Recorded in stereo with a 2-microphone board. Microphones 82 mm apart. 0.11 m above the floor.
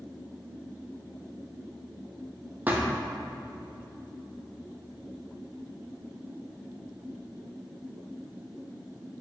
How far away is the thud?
About 1.9 m.